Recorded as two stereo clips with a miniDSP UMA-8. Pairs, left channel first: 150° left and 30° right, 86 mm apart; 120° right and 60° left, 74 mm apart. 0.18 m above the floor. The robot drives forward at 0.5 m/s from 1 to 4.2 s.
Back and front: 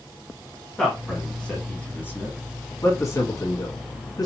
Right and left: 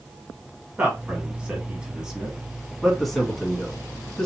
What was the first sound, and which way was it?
A man speaking, 70° left.